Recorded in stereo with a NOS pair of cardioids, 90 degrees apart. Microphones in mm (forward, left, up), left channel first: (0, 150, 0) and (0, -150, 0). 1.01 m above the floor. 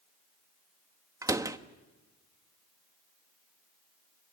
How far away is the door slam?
About 1.1 m.